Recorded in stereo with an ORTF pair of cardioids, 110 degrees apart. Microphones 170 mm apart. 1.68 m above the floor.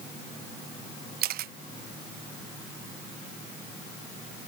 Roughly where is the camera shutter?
Ahead right.